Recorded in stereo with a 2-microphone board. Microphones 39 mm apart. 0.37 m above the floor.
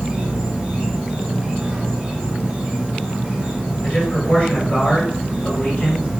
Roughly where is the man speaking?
Left.